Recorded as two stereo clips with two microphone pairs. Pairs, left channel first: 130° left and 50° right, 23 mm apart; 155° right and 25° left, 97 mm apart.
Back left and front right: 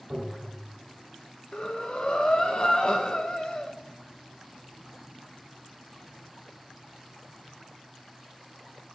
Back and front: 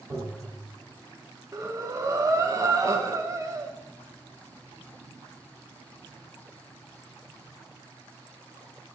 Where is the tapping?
30° right, 3 m.